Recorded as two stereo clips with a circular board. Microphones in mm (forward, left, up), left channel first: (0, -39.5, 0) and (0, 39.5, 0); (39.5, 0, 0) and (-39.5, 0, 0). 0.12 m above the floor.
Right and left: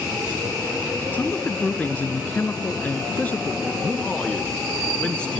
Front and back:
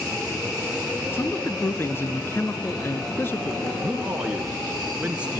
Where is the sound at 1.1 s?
35° right, 1.3 m.